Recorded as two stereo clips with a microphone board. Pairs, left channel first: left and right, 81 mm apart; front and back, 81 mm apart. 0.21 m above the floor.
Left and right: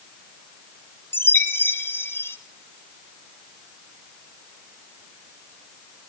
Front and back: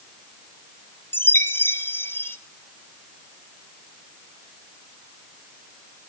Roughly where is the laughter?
No laughter in this recording.